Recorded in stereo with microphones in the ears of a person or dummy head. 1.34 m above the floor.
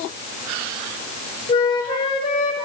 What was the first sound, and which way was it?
A flute, 30° left (ahead or behind).